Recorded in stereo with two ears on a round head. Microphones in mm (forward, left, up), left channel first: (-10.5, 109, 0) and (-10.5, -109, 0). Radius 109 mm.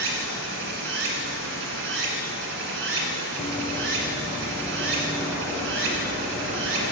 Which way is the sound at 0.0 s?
55° right (ahead or behind).